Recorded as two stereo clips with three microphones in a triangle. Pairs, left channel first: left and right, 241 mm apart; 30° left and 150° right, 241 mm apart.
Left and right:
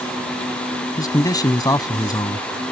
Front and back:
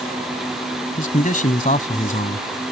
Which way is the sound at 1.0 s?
30° left.